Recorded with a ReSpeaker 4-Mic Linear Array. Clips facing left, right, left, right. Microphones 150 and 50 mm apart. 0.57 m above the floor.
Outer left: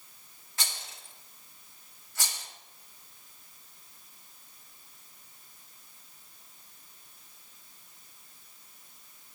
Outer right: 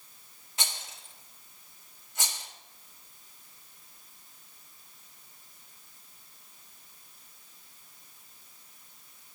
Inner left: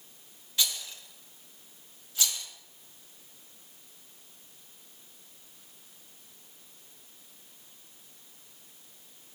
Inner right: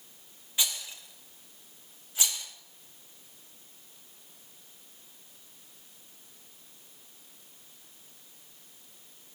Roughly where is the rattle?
Right.